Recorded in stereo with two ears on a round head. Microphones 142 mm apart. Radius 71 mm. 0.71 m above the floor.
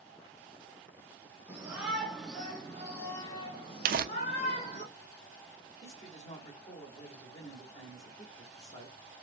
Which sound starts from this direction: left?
A man speaking, at 5.8 s.